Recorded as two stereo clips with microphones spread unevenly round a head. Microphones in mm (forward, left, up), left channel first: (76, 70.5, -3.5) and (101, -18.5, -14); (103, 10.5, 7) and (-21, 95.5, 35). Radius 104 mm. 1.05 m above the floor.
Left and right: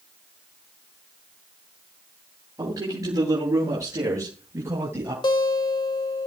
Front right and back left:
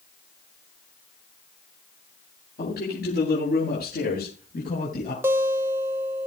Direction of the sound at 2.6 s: 25° right.